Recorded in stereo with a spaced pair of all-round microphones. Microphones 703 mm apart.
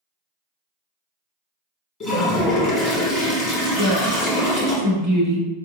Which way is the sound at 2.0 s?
25° left (ahead or behind).